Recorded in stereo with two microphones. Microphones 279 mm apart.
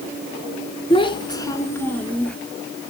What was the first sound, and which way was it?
A child speaking, 20° left (ahead or behind).